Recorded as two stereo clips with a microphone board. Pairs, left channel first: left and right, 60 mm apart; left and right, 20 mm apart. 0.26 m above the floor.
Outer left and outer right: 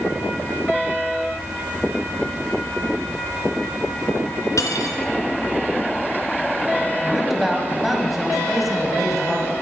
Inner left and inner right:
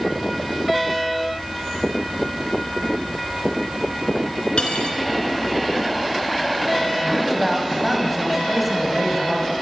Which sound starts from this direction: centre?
A man speaking, at 7.0 s.